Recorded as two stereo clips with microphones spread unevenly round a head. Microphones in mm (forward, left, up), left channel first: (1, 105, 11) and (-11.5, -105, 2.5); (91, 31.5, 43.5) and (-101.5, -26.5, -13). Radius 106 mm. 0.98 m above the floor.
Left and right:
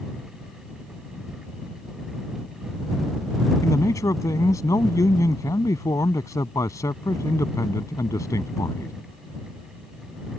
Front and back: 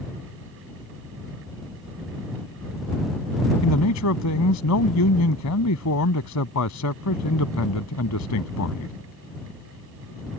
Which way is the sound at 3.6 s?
10° left.